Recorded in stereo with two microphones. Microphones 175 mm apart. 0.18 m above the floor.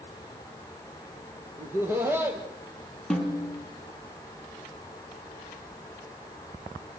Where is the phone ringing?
I don't hear a phone ringing.